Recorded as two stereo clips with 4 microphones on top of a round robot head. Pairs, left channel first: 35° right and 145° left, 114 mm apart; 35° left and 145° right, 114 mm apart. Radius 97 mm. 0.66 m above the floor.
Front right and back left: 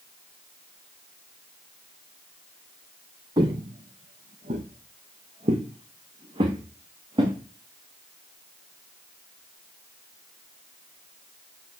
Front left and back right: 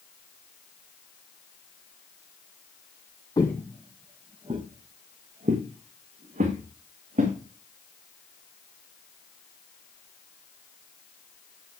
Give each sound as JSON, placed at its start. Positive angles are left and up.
{"t": 3.4, "sound": "footsteps", "azimuth_deg": 95, "distance_m": 0.8}